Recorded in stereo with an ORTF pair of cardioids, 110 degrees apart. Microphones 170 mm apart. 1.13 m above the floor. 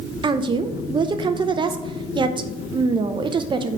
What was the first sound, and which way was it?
A woman speaking, 30° right.